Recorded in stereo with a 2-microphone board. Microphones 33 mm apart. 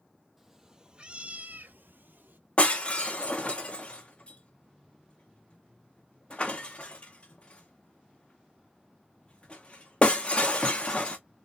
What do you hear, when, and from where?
0.4 s a cat meowing: 10° right (ahead or behind), 0.9 m; by 2.4 s 75° right (ahead or behind), 0.7 m
2.6 s breaking glass: 35° left (ahead or behind), 1.0 m